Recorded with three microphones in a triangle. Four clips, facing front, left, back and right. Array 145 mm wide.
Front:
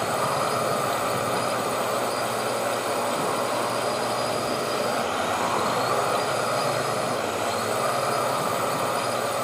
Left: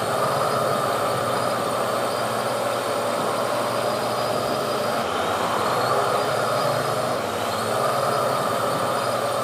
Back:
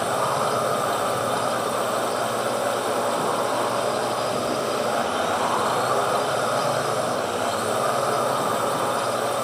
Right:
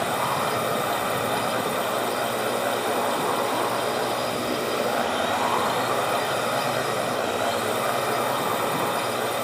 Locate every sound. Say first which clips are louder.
0.0 s a drone: left 3 dB, back 2 dB; 110° left